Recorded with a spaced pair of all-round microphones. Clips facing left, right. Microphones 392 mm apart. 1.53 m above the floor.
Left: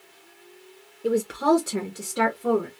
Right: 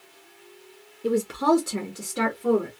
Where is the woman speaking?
10° right (ahead or behind), 0.7 m; by 2.7 s centre (ahead or behind), 1.5 m.